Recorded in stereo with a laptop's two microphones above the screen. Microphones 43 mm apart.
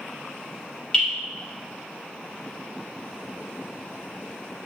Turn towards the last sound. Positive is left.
turn(degrees=10)  # may be behind; listen again after turning